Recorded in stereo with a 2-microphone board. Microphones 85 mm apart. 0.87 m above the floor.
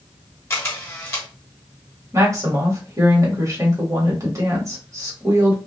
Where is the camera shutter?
30° left (ahead or behind), 0.8 m.